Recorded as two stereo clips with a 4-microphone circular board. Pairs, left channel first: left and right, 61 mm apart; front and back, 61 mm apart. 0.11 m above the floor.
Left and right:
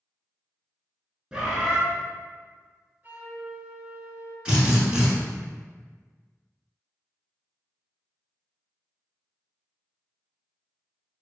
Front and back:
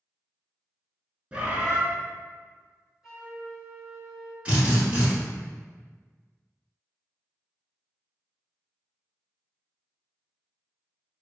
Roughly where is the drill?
Behind right.